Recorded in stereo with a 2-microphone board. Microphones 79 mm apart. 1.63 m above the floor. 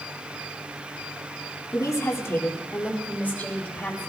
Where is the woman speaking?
45° left (ahead or behind), 1.6 m; by 4.1 s 15° left (ahead or behind), 4 m.